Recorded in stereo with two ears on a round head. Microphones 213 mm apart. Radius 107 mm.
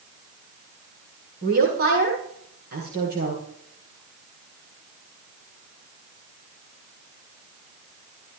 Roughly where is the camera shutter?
No camera shutter in this recording.